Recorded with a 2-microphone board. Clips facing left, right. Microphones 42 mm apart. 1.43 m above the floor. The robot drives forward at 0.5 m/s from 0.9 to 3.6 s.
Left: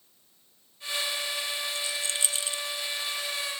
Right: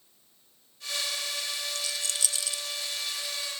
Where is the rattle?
20° left (ahead or behind), 0.9 m; by 2.6 s 30° left (ahead or behind), 0.6 m.